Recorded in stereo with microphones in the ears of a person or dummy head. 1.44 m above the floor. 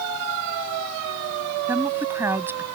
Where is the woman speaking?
10° right (ahead or behind).